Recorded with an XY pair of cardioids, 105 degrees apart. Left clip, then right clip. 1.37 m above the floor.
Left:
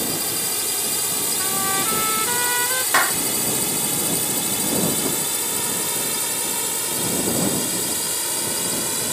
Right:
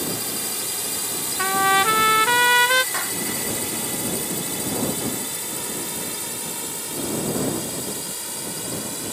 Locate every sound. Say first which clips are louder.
0.0 s a drone: left 2 dB; 15° left; by 9.1 s 35° left
1.4 s a trumpet: right 9 dB; 65° right
2.9 s a clap: left 8 dB; 65° left